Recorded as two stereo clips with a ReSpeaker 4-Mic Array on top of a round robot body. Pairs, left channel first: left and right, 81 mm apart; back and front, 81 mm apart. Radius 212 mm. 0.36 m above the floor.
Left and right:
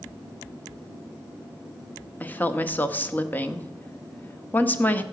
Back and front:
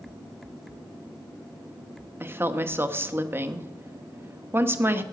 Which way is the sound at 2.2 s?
40° left.